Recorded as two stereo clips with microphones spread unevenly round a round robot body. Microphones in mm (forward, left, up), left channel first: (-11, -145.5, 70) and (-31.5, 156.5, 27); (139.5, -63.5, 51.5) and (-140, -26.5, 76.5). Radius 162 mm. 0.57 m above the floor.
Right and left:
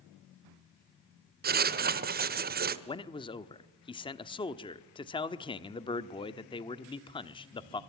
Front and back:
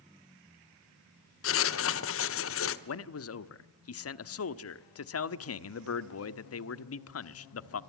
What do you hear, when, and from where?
1.4 s writing: 35° left, 1.2 m
2.9 s a man speaking: 10° right, 1.2 m